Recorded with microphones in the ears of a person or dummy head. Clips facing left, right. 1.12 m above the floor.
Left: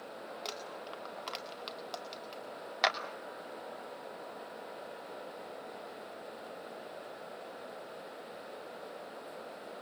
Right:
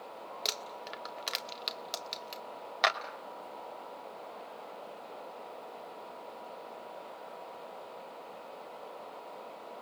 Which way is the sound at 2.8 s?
Centre (ahead or behind).